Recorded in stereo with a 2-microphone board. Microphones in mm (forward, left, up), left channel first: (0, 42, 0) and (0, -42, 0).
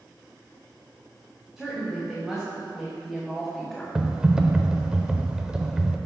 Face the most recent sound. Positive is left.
turn(degrees=-10)  # may be behind; listen again after turning